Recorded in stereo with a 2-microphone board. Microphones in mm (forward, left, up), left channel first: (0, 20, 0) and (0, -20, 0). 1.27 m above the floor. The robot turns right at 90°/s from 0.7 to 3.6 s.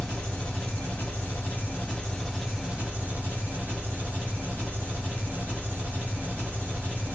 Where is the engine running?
25° left, 1.8 m; by 7.2 s 70° right, 1.8 m.